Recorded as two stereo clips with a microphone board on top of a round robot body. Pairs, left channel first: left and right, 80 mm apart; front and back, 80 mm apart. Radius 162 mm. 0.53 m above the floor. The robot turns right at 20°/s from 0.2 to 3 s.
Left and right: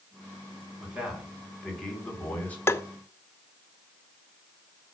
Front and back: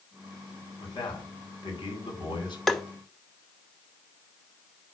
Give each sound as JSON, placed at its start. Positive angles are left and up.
{"t": 0.8, "sound": "a man speaking", "azimuth_deg": -15, "distance_m": 4.0}
{"t": 2.7, "sound": "tapping", "azimuth_deg": 85, "distance_m": 1.2}